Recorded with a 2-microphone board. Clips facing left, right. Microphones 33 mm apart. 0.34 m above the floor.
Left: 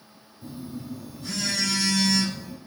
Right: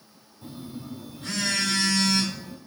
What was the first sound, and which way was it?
A phone buzzing, 45° right (ahead or behind).